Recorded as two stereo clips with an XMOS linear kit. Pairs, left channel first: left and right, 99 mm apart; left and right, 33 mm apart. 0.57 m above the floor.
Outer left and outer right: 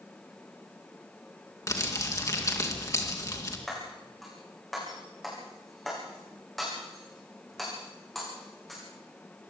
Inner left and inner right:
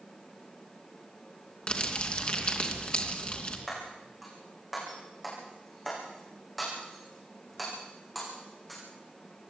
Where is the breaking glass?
Centre (ahead or behind), 7.5 m.